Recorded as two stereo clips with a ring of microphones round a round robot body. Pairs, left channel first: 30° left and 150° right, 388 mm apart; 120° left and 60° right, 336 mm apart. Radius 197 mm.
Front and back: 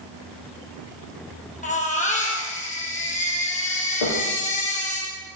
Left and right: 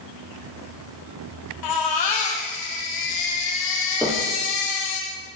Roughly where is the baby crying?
Left.